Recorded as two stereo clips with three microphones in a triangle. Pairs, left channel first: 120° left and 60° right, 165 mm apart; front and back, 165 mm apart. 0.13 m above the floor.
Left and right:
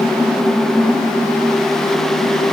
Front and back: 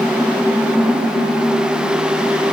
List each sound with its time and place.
Only background noise.